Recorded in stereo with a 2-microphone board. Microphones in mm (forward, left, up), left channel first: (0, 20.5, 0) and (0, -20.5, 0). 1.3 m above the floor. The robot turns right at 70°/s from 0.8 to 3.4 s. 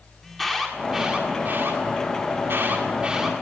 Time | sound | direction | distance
0.2 | an alarm | centre (ahead or behind) | 8 m